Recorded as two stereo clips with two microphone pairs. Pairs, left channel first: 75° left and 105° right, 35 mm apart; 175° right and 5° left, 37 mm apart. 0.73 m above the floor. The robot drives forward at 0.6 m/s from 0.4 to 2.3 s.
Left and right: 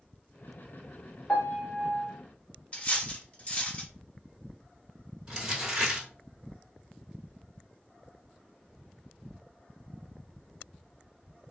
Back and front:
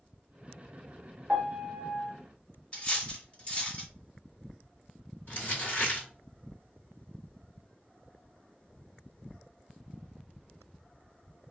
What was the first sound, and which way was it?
A piano, 30° left.